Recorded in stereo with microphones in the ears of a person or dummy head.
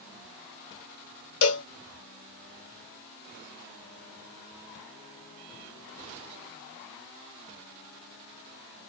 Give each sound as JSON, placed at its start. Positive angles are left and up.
{"t": 1.4, "sound": "a cowbell", "side_deg": 70, "distance_m": 1.3}